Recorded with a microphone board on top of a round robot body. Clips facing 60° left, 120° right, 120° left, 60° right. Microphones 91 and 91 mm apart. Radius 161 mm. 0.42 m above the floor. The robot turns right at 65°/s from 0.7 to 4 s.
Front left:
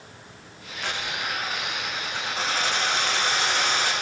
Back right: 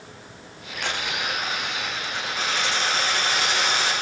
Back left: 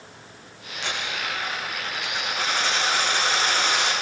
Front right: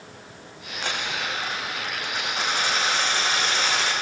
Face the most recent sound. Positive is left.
turn(degrees=105)